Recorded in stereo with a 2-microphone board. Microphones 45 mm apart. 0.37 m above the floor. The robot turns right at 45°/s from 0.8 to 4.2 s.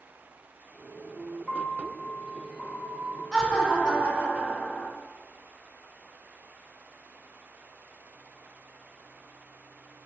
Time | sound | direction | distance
1.5 | a piano | 100° left | 0.9 m
3.3 | laughter | 175° right | 1.3 m